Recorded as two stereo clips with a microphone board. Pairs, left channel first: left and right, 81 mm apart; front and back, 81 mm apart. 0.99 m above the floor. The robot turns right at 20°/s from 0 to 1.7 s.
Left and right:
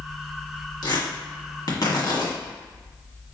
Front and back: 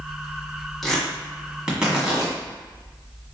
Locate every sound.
0.8 s tearing paper: 85° left, 1.4 m; by 2.3 s 105° left, 1.4 m